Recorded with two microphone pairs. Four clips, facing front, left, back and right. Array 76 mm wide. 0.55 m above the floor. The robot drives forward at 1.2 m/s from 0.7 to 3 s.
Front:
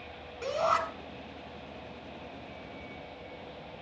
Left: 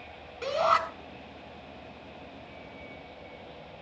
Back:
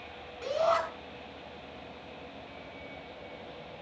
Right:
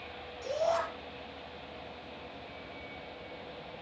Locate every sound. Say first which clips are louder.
0.4 s a shout: left 6 dB, back 1 dB; 70° left, 3 m; by 0.8 s 75° left, 3 m